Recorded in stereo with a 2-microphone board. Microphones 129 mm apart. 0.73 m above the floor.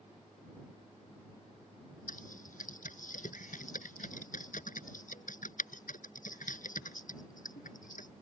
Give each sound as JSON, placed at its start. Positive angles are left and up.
{"t": 2.1, "sound": "typing on a keyboard", "side_deg": 80}